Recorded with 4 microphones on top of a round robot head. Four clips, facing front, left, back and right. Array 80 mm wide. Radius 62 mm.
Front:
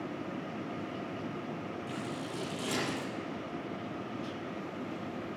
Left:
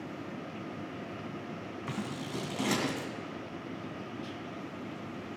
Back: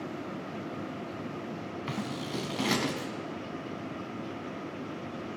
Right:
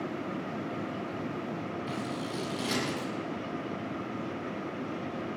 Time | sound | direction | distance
1.9 | scissors | 150° left | 2.5 m